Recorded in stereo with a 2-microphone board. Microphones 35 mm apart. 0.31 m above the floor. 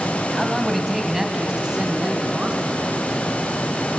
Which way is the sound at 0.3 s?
5° left (ahead or behind).